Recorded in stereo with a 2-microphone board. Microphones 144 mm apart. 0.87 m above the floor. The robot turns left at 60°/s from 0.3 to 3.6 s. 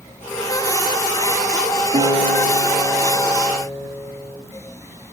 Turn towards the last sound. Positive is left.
turn(degrees=-160)